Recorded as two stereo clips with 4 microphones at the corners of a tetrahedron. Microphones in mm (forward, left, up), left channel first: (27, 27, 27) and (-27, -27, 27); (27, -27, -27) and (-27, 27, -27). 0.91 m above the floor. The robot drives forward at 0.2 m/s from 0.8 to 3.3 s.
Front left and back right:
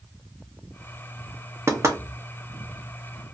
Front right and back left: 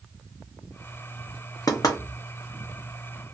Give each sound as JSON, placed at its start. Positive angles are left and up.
{"t": 1.7, "sound": "knocking", "azimuth_deg": -80, "distance_m": 0.7}